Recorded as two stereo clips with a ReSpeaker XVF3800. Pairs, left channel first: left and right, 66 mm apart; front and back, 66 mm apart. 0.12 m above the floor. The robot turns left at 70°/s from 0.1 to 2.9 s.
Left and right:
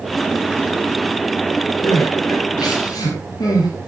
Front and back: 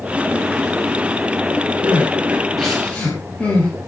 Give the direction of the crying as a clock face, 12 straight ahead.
7 o'clock.